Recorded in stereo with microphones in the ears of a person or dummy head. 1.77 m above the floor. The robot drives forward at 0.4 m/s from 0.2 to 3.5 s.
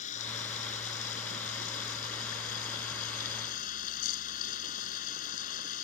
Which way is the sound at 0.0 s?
45° left (ahead or behind).